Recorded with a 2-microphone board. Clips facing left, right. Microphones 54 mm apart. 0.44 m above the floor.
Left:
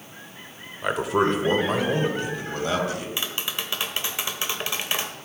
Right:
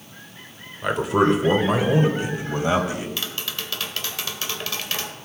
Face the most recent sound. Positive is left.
turn(degrees=20)  # may be behind; listen again after turning